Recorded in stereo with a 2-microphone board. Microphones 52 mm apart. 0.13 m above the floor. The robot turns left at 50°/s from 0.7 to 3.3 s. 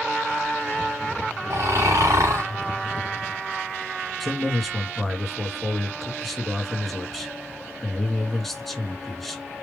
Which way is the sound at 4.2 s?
5° left (ahead or behind).